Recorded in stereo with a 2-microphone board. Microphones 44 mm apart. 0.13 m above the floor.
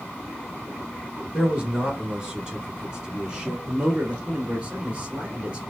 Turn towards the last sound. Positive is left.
turn(degrees=-20)  # may be behind; listen again after turning